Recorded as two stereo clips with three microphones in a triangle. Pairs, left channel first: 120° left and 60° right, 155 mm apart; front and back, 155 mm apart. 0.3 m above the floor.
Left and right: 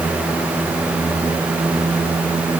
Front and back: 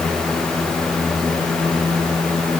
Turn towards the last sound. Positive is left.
No sound to turn to.